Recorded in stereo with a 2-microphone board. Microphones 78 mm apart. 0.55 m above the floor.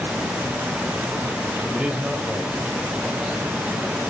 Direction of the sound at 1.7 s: 15° right (ahead or behind).